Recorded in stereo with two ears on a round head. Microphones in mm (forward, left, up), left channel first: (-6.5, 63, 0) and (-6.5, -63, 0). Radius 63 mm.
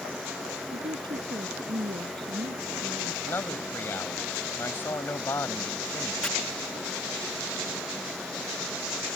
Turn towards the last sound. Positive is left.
turn(degrees=5)  # may be behind; listen again after turning